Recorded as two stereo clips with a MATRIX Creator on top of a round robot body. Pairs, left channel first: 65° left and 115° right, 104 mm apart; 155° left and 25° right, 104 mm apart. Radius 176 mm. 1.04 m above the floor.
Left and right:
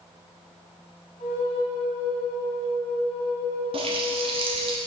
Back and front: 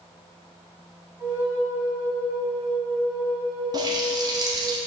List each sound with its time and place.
1.2 s a flute: 55° left, 1.6 m
3.7 s a running tap: 75° right, 1.1 m